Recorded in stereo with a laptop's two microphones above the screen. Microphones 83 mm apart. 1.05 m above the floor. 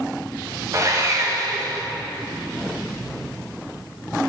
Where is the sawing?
40° right (ahead or behind), 1.3 m.